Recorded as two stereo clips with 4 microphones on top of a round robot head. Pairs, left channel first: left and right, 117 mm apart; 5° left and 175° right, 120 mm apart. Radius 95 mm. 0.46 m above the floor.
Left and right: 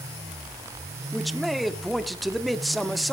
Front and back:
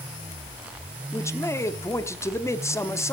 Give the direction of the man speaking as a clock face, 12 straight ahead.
12 o'clock.